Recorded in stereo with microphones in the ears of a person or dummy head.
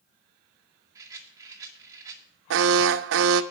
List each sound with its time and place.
0.9 s a rattle: 15° right (ahead or behind), 2 m
2.5 s an alarm: 75° right (ahead or behind), 0.8 m